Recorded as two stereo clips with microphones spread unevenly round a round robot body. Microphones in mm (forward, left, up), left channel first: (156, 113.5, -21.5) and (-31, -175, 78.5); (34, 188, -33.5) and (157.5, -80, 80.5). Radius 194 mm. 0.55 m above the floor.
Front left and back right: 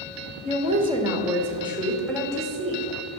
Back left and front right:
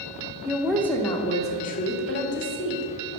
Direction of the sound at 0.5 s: 160° left.